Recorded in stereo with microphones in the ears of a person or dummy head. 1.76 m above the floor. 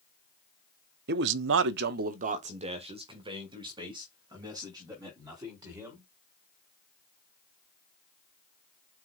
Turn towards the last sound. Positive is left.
turn(degrees=-15)  # may be behind; listen again after turning